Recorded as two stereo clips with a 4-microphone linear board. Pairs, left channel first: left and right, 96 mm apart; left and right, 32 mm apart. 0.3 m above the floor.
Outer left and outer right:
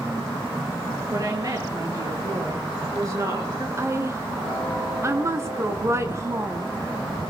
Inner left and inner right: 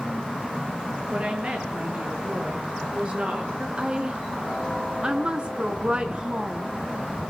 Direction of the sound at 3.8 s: 30° right (ahead or behind).